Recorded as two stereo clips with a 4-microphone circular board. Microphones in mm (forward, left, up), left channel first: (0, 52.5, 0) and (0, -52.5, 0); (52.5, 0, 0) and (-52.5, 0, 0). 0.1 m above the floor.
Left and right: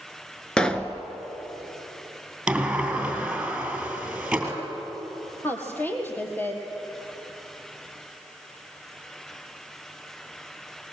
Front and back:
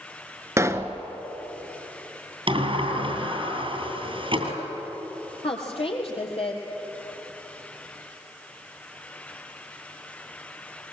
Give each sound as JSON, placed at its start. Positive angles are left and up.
{"t": 0.6, "sound": "a pop", "azimuth_deg": 165, "distance_m": 0.9}
{"t": 2.5, "sound": "a sliding door", "azimuth_deg": -170, "distance_m": 2.5}
{"t": 5.4, "sound": "a woman speaking", "azimuth_deg": 20, "distance_m": 3.5}